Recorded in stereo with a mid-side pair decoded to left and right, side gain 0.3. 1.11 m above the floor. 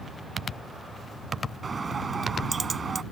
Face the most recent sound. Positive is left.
turn(degrees=-45)